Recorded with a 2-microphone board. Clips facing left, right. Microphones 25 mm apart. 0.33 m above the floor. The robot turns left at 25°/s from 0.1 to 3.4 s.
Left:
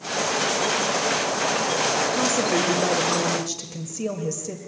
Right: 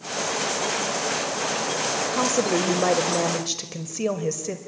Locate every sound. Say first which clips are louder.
2.1 s a woman speaking: left 1 dB; 95° right, 1.4 m; by 4.6 s 125° right, 1.4 m